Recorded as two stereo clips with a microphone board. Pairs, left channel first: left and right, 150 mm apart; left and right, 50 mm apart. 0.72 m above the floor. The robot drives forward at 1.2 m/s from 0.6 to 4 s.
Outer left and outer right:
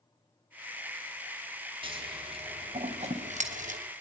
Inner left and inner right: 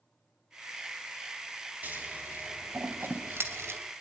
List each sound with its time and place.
1.8 s scissors: 35° right (ahead or behind), 4.5 m; by 3.8 s 60° right (ahead or behind), 3 m